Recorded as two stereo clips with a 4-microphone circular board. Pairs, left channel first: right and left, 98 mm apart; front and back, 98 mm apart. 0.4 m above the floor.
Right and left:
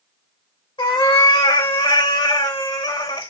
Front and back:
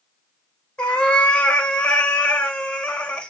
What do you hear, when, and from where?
0.8 s a cat meowing: 80° right, 0.8 m